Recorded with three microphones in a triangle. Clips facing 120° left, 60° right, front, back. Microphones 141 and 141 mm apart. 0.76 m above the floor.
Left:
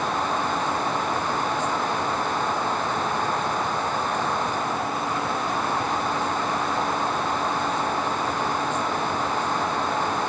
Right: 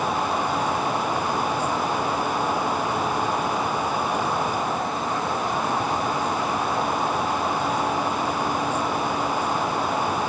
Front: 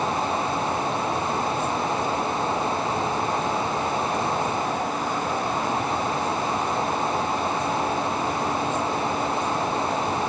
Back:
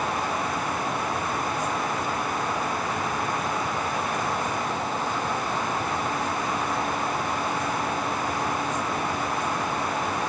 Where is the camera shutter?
No camera shutter in this recording.